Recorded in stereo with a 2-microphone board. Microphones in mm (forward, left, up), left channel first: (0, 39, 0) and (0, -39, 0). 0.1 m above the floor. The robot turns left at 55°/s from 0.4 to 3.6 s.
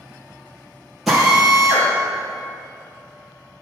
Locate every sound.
1.1 s a drill: centre (ahead or behind), 3 m; by 3.6 s 30° right (ahead or behind), 3 m